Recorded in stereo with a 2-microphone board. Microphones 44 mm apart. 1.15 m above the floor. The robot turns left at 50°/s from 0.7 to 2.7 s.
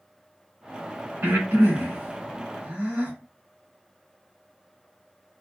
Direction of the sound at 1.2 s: 75° right (ahead or behind).